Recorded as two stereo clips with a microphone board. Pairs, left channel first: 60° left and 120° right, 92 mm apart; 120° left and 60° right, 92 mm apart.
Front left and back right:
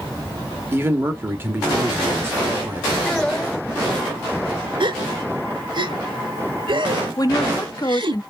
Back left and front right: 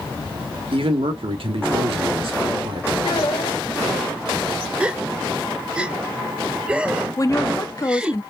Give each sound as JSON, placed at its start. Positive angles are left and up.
{"t": 0.7, "sound": "a man speaking", "azimuth_deg": -55, "distance_m": 1.6}
{"t": 3.0, "sound": "a child speaking", "azimuth_deg": 140, "distance_m": 1.9}
{"t": 4.8, "sound": "a gasp", "azimuth_deg": -135, "distance_m": 0.8}
{"t": 7.2, "sound": "a woman speaking", "azimuth_deg": 85, "distance_m": 1.0}